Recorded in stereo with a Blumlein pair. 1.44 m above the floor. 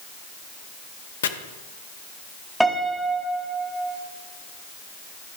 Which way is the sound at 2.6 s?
Straight ahead.